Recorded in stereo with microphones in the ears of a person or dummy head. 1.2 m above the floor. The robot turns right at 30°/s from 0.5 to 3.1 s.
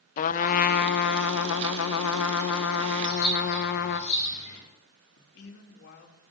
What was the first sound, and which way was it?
A trumpet, 45° left.